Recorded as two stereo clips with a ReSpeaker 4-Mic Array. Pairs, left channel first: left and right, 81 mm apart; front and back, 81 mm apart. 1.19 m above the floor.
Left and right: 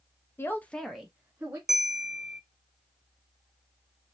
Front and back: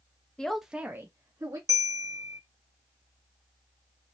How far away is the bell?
About 0.5 m.